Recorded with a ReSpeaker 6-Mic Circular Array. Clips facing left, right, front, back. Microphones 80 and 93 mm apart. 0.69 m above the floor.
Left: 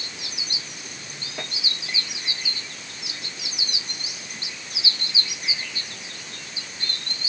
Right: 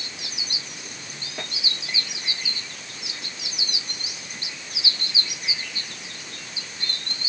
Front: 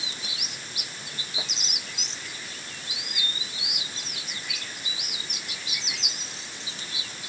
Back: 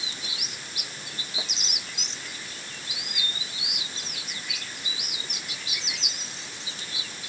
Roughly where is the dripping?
I don't hear dripping.